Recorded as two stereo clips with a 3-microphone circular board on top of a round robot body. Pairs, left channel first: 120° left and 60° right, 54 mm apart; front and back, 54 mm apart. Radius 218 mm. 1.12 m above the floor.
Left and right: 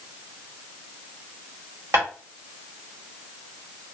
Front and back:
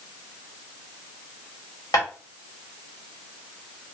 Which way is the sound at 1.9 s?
20° right.